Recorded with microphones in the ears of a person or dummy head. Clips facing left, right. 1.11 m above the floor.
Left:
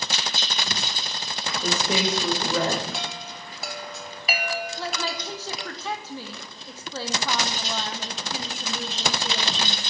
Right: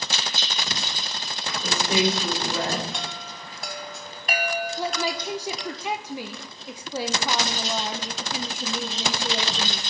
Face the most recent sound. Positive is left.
turn(degrees=-15)  # may be behind; listen again after turning